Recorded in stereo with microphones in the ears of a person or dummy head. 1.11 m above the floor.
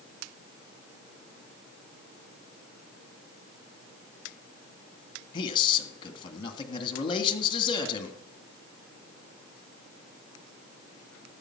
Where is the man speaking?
30° left (ahead or behind), 1.8 m.